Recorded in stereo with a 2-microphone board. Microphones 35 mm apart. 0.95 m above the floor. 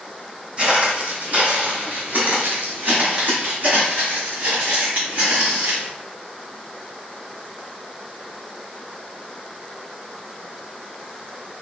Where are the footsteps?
40° right (ahead or behind), 1.8 m; by 5.9 s 60° right (ahead or behind), 3 m.